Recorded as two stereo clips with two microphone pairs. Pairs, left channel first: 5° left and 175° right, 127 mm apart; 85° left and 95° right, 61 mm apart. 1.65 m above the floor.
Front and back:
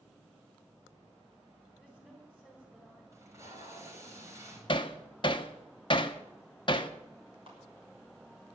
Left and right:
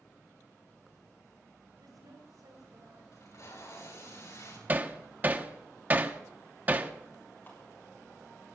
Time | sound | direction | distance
1.8 | a woman speaking | 90° right | 5 m
3.1 | tape being pulled | 120° left | 6 m
4.7 | hammering | 40° right | 1.0 m
7.5 | a clap | 140° left | 6.5 m